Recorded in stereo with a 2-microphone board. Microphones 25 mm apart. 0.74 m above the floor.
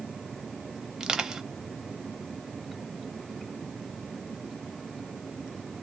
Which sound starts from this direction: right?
Crushing, at 1.0 s.